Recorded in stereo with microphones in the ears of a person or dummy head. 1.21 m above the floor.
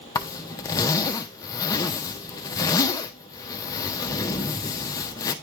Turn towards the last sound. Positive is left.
turn(degrees=20)  # may be behind; listen again after turning